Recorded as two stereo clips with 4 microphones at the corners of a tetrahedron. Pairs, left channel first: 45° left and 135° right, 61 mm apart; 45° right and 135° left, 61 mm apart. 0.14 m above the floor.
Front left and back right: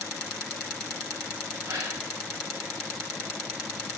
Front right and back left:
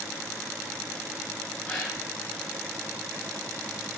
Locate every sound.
1.6 s a gasp: 115° right, 4 m